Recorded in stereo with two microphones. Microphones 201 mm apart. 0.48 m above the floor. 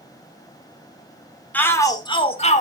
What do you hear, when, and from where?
1.5 s a shout: 10° left (ahead or behind), 1.3 m; by 2.6 s 35° left (ahead or behind), 1.3 m